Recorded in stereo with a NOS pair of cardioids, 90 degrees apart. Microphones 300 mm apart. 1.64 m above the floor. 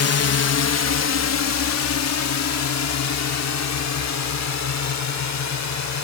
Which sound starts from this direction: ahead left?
A drone, at 0.0 s.